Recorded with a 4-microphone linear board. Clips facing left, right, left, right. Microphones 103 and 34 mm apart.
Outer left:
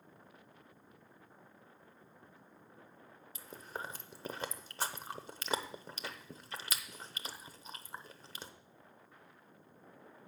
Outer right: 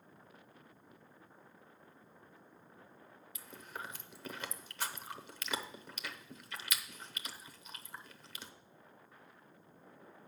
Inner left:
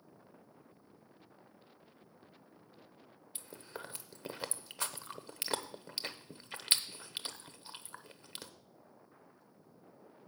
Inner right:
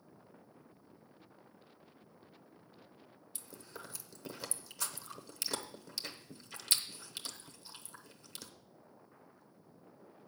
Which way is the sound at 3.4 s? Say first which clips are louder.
Outer left 3 dB, inner left 3 dB; 35° left (ahead or behind).